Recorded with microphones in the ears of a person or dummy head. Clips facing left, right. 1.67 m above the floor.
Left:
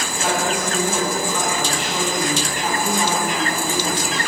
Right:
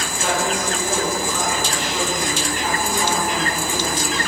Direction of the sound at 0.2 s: 20° left (ahead or behind).